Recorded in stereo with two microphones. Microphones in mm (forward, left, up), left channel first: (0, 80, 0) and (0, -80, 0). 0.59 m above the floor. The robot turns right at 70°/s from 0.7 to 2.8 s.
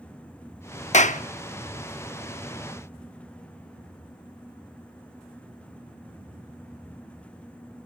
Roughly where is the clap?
Left.